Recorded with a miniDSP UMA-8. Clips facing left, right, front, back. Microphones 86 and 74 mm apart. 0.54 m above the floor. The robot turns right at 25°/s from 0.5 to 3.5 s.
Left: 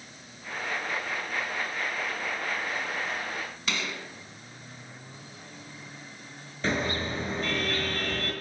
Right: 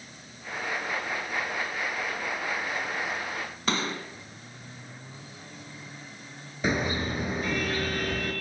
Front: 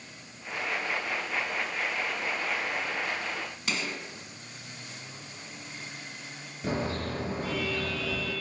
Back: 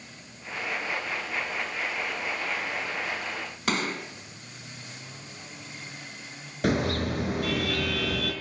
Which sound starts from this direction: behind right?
A gunshot, at 3.7 s.